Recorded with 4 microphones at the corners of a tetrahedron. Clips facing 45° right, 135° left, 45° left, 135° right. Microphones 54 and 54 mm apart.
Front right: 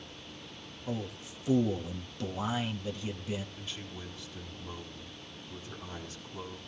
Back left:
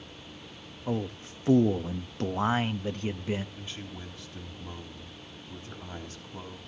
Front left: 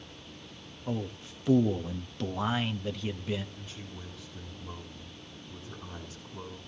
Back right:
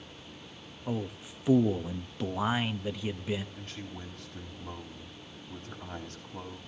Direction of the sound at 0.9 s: 150° left.